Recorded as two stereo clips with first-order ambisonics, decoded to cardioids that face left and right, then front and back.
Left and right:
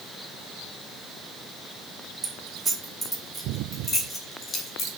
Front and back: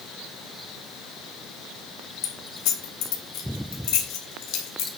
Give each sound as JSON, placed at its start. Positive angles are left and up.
{"t": 2.2, "sound": "keys jangling", "azimuth_deg": -25, "distance_m": 2.5}